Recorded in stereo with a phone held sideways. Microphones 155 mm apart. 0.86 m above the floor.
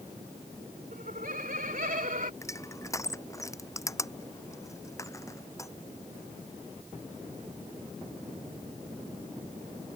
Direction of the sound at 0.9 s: 75° right (ahead or behind).